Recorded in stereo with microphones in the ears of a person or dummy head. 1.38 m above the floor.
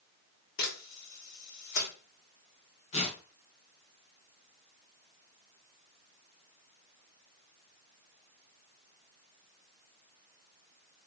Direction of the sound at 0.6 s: 65° left (ahead or behind).